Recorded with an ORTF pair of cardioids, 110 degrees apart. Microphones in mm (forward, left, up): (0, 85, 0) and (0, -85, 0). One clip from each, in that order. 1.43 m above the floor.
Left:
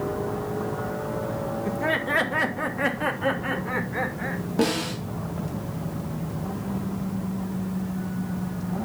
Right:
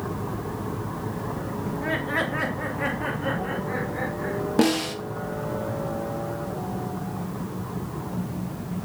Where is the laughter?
25° left, 1.6 m; by 4.4 s 45° left, 4 m.